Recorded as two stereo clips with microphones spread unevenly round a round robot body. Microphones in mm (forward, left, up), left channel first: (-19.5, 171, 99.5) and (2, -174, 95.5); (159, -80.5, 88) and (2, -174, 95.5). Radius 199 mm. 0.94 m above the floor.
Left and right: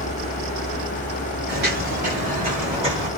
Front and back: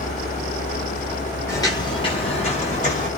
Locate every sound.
1.5 s footsteps: 40° right, 1.1 m; by 3.1 s 10° right, 1.8 m